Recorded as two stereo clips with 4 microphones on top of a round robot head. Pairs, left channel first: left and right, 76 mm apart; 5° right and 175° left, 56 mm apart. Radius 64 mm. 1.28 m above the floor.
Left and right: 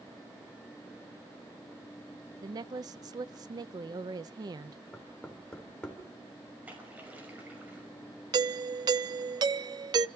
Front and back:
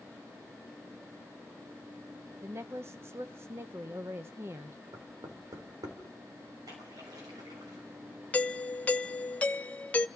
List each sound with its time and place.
2.4 s a woman speaking: 130° right, 0.7 m
4.9 s knocking: 165° left, 4 m
6.7 s a splash: 160° right, 5.5 m
8.3 s a doorbell: 70° right, 0.6 m